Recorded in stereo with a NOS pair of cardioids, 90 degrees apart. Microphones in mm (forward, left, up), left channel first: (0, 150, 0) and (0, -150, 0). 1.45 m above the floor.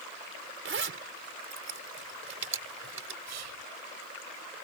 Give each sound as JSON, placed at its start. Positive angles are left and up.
{"t": 0.7, "sound": "a zipper", "azimuth_deg": -40}
{"t": 3.3, "sound": "whispering", "azimuth_deg": -65}